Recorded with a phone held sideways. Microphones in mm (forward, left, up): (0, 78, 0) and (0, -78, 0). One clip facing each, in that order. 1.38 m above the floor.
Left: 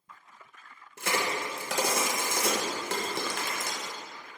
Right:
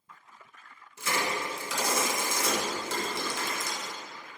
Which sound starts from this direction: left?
A crack, at 1.0 s.